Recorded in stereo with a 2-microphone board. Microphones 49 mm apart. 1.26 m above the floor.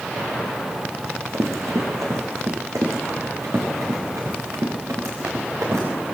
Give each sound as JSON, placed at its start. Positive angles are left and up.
{"t": 1.0, "sound": "running footsteps", "side_deg": -75, "distance_m": 4.5}